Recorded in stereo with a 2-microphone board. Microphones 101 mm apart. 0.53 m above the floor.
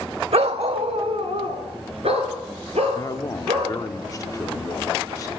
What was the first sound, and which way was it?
A dog barking, 70° right (ahead or behind).